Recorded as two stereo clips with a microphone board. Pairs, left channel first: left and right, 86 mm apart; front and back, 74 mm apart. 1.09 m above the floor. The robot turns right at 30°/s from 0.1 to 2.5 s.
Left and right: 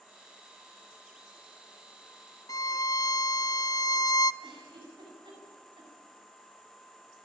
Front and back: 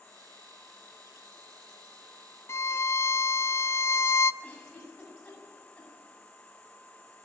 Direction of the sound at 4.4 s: 75° right.